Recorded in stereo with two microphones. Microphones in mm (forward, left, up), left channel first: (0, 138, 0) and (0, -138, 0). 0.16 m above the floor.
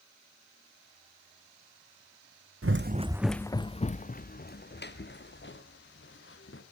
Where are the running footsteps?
60° right (ahead or behind), 0.5 m; by 6.6 s 50° left (ahead or behind), 3 m.